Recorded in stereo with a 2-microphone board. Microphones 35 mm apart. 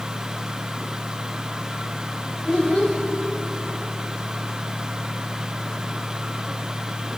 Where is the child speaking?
25° right (ahead or behind), 2.5 m.